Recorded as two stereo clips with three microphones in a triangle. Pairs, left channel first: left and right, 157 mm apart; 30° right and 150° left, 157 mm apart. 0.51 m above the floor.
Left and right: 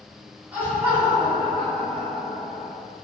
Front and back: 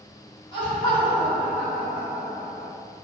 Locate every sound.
0.5 s laughter: 15° right, 1.2 m; by 2.7 s 160° right, 1.3 m